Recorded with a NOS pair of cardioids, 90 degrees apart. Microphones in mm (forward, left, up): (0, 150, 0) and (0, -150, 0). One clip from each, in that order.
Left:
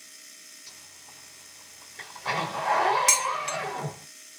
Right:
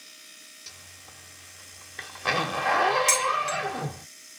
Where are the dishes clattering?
15° left, 0.8 m.